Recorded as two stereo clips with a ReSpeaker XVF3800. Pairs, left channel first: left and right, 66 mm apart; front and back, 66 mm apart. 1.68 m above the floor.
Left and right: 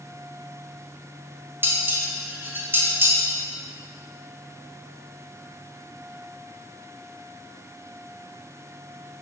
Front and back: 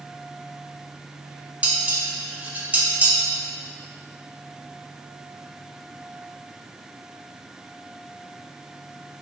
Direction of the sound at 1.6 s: 120° right.